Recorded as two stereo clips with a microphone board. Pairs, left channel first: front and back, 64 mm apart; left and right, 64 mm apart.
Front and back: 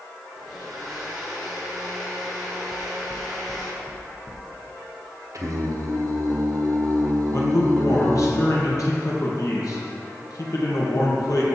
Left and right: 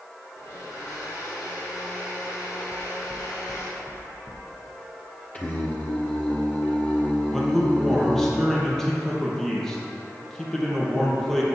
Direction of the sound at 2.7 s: 50° right.